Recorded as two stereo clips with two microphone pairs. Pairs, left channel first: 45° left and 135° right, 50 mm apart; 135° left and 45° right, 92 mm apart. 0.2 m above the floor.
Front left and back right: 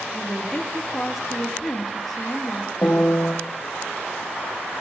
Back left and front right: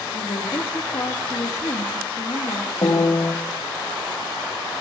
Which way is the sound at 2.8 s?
100° left.